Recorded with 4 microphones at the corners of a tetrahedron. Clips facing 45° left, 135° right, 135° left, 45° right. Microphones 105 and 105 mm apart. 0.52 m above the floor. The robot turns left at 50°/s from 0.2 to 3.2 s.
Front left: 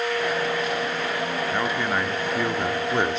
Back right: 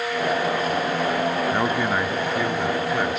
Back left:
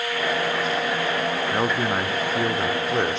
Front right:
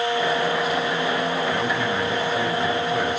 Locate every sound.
1.5 s a man speaking: 170° left, 1.6 m; by 3.2 s 85° left, 1.6 m